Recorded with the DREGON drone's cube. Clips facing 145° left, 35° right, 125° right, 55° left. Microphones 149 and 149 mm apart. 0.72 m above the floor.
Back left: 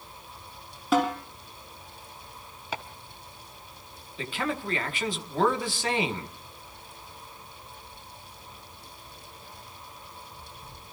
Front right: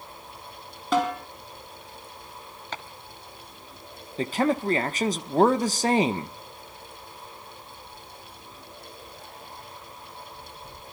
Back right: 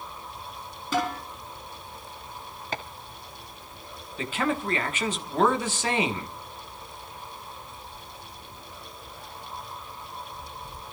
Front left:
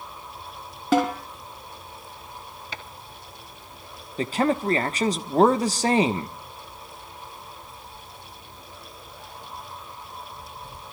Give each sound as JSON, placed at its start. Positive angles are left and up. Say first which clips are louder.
{"t": 0.9, "sound": "a snare drum", "louder": "even, front left 6 dB", "azimuth_deg": 60, "distance_m": 6.0}
{"t": 2.7, "sound": "chopping", "louder": "back left 2 dB, back right 7 dB", "azimuth_deg": -135, "distance_m": 1.4}
{"t": 4.2, "sound": "a man speaking", "louder": "front right 8 dB, front left 5 dB", "azimuth_deg": 10, "distance_m": 1.1}